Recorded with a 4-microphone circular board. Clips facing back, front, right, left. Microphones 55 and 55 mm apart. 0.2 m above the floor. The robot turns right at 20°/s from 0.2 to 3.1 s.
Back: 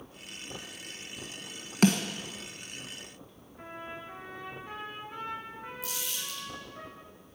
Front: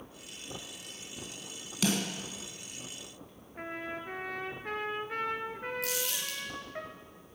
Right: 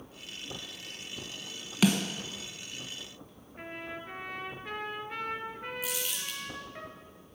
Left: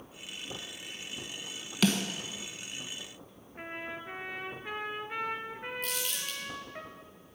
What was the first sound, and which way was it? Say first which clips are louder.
A snare drum: back 6 dB, right 2 dB; 165° right.